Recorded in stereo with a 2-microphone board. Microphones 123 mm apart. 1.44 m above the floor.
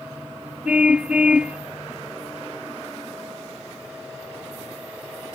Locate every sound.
0.7 s a car horn: 10° right (ahead or behind)